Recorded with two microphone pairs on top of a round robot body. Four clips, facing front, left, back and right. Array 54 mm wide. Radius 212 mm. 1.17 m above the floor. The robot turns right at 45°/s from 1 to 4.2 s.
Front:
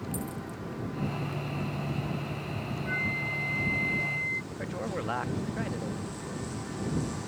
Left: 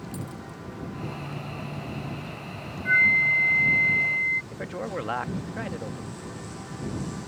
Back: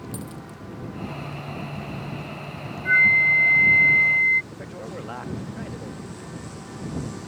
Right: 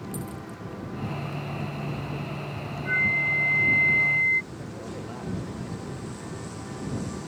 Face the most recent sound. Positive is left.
turn(degrees=75)